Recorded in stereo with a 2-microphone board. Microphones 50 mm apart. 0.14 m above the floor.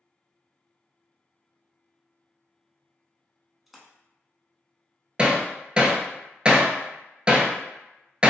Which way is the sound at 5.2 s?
25° right (ahead or behind).